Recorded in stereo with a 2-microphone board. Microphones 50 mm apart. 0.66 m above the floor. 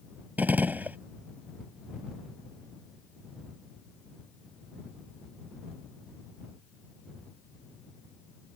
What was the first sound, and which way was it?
A gunshot, 35° right (ahead or behind).